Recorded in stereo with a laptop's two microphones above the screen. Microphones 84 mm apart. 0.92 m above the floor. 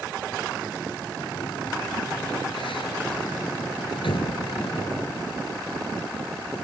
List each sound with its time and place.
1.2 s a sliding door: 90° left